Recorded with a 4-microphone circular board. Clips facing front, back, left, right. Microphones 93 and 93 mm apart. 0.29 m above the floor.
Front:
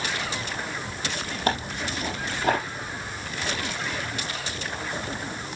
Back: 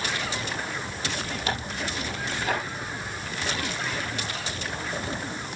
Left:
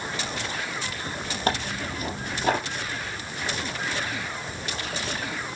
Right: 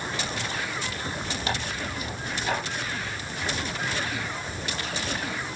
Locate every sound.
1.5 s tearing paper: 50° left, 4.5 m